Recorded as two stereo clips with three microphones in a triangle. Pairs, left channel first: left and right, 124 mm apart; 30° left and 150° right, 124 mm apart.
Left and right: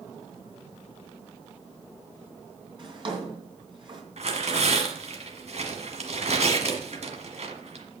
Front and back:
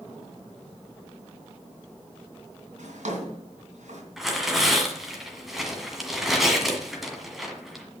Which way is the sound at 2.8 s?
140° right.